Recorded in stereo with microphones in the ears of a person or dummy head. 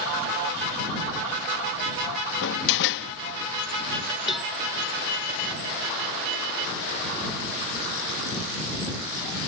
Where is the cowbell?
5° right (ahead or behind).